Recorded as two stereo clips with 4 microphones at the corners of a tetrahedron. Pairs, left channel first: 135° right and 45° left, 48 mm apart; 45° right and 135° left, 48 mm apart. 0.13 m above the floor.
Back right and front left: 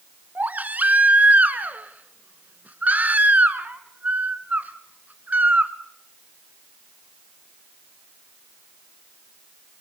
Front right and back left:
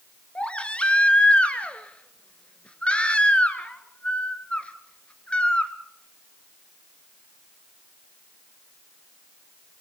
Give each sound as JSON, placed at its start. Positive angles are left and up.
{"t": 0.3, "sound": "a baby crying", "azimuth_deg": 5, "distance_m": 1.4}